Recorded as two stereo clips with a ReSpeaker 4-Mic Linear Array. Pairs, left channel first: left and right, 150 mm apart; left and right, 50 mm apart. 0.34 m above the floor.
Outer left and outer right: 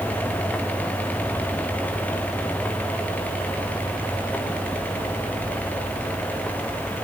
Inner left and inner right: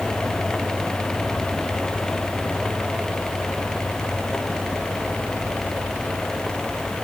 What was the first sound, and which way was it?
Only background noise.